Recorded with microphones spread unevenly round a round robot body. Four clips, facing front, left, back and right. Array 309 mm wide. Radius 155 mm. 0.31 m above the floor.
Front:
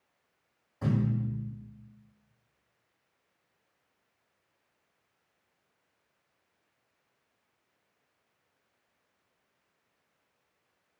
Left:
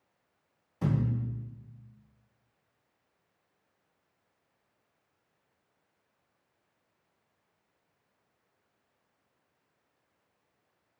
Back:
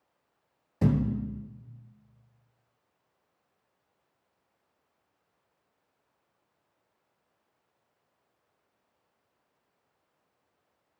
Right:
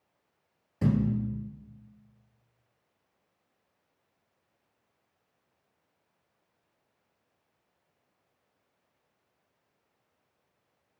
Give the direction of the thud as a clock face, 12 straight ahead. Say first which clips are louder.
Right 4 dB, back 3 dB; 5 o'clock.